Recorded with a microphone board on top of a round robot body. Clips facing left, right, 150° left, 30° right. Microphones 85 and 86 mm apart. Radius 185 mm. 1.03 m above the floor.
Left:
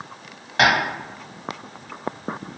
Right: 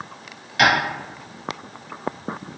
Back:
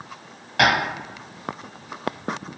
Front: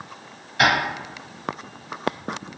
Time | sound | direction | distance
0.6 | tapping | 140° left | 1.7 m